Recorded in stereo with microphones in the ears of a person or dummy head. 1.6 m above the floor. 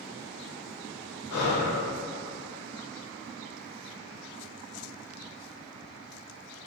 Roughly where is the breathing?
Left.